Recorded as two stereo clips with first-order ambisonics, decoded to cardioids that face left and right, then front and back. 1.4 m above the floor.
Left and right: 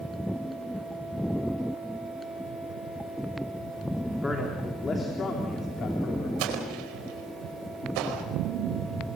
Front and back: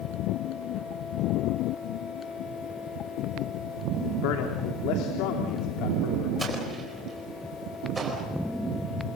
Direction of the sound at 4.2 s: 10° left.